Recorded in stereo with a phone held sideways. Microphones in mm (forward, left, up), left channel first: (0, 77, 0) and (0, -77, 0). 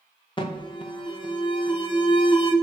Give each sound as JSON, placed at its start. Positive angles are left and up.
{"t": 0.4, "sound": "an alarm", "side_deg": 30, "distance_m": 0.7}